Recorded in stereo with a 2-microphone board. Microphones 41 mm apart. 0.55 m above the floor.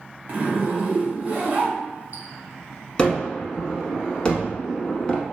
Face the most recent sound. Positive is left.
turn(degrees=20)  # may be behind; listen again after turning